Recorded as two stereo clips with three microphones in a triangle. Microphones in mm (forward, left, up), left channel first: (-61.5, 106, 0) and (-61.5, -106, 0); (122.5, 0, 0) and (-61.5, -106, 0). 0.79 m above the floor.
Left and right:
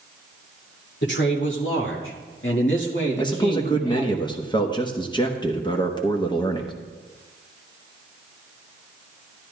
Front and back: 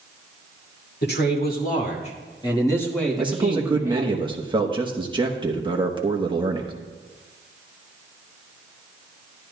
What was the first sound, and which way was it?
A man speaking, 65° left.